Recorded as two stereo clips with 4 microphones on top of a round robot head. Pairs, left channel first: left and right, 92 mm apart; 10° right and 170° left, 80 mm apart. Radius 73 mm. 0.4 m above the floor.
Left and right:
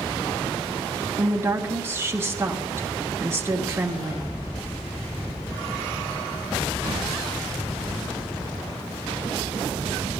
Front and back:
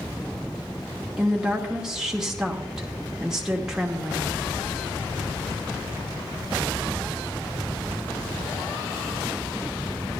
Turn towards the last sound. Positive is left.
turn(degrees=-115)